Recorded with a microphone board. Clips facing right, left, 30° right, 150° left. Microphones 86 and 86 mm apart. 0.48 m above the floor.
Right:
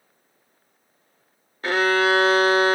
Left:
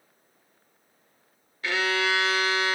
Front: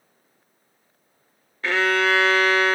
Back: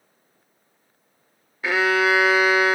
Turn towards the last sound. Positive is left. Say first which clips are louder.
# right 7 dB, back 1 dB
turn(degrees=-130)